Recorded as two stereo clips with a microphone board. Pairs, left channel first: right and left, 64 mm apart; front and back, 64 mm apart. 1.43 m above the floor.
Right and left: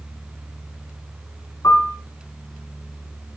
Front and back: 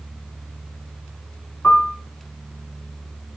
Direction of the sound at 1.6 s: 75° right.